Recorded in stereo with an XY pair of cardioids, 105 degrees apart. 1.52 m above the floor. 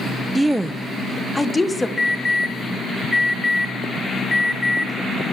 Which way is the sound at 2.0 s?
30° left.